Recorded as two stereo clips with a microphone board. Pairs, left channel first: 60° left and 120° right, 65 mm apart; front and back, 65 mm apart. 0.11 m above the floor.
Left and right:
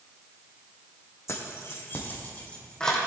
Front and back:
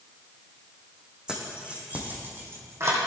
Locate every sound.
1.3 s keys jangling: 105° left, 3.5 m; by 3.0 s 140° left, 3 m